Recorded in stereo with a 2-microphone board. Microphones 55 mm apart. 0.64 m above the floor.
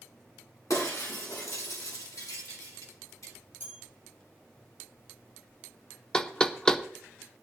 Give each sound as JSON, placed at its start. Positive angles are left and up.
{"t": 0.7, "sound": "breaking glass", "side_deg": 80, "distance_m": 3.5}
{"t": 3.6, "sound": "a bell", "side_deg": 40, "distance_m": 5.0}
{"t": 6.1, "sound": "knocking", "side_deg": 15, "distance_m": 0.6}